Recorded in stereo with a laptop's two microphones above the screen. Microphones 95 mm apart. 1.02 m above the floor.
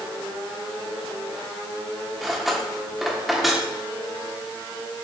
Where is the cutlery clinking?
Centre (ahead or behind), 1.3 m.